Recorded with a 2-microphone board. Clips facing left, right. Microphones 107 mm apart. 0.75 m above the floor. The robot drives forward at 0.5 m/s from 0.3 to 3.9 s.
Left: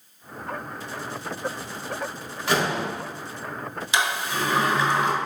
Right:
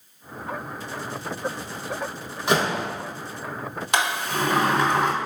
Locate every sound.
2.5 s a door slam: 20° right (ahead or behind), 1.1 m
3.9 s a sliding door: 55° right (ahead or behind), 0.7 m